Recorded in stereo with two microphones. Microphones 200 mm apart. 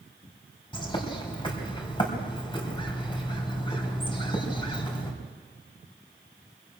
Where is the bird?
25° left (ahead or behind), 3.5 m.